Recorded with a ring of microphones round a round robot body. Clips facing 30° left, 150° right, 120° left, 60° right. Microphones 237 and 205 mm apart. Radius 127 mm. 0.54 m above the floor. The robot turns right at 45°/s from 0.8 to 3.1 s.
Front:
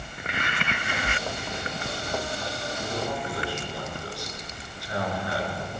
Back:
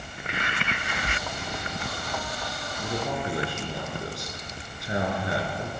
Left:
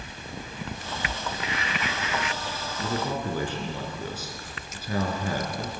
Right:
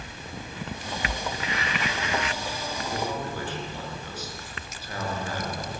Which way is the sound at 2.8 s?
125° left.